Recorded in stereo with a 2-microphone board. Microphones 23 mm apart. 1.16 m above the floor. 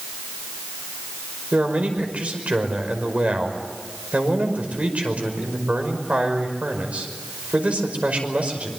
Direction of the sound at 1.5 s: 65° right (ahead or behind).